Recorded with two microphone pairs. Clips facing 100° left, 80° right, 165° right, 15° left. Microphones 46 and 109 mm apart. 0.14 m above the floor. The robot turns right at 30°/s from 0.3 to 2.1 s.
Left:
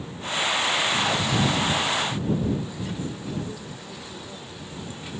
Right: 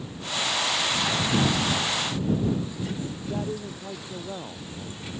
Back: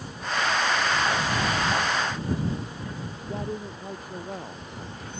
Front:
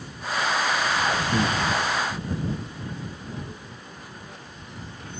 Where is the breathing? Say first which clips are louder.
Even, front 2 dB; straight ahead; by 1.6 s 5° left.